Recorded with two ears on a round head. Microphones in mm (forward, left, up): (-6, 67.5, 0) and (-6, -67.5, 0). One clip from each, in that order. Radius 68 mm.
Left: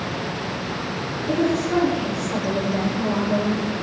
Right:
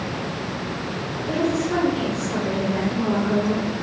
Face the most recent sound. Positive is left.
turn(degrees=-80)